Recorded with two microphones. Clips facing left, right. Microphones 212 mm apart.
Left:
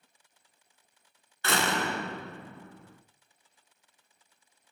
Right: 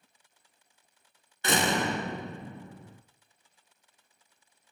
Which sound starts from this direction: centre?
A door slam, at 1.4 s.